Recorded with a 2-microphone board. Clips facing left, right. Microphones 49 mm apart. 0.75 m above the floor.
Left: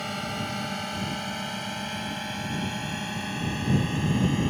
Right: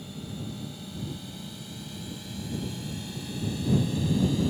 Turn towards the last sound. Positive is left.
turn(degrees=45)  # may be behind; listen again after turning